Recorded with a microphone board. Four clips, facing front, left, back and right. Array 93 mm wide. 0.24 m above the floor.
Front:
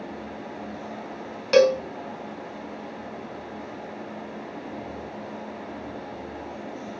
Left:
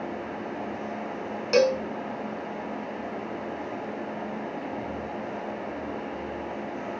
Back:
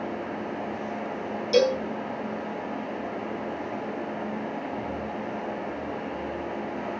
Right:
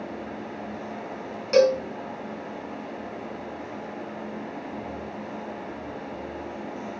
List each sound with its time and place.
1.5 s a cowbell: 10° left, 1.6 m